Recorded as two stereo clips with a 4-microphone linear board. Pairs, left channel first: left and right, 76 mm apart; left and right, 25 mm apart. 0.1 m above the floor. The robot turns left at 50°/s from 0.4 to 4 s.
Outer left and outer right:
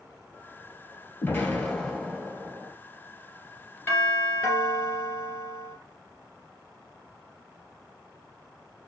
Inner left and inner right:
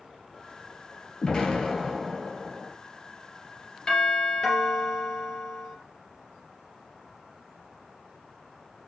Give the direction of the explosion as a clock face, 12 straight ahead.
10 o'clock.